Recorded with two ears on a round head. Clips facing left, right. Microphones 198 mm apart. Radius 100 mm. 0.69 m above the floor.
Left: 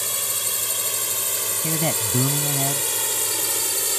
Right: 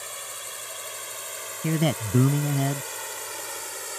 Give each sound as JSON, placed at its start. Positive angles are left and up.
{"t": 0.0, "sound": "a drone", "side_deg": 60}
{"t": 1.6, "sound": "a man speaking", "side_deg": -15}